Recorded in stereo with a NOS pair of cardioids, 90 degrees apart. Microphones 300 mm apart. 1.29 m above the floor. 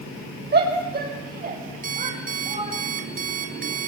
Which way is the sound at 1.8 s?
30° right.